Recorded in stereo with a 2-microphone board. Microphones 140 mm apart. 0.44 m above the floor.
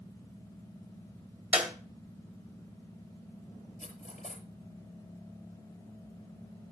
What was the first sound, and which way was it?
A clap, 10° right (ahead or behind).